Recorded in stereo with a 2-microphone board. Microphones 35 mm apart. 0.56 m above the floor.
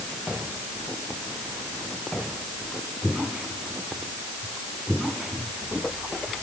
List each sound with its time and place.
Only background noise.